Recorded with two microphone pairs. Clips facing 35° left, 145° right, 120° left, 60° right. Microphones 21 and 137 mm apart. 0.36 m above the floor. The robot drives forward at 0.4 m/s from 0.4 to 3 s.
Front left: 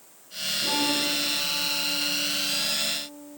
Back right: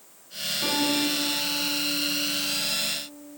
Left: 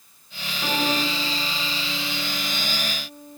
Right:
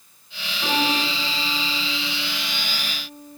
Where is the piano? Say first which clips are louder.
Back right 1 dB, right 1 dB; 155° right, 4.5 m; by 3.4 s 160° right, 5 m.